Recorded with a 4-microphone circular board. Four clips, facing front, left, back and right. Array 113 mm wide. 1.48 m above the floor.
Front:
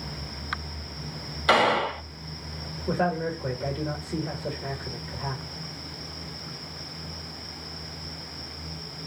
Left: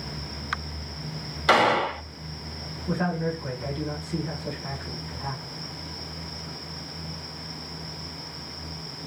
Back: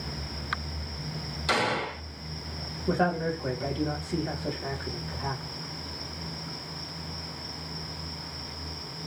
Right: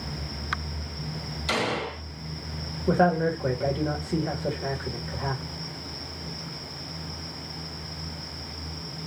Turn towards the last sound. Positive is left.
turn(degrees=-85)